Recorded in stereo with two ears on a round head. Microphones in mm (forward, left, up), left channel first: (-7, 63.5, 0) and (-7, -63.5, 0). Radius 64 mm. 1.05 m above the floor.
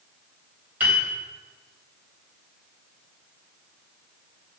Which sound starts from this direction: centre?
A piano, at 0.8 s.